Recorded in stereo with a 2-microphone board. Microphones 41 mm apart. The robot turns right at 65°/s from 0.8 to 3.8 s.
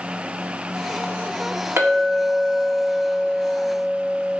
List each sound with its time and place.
1.8 s a clink: 70° right, 2 m; by 4.4 s 65° left, 2 m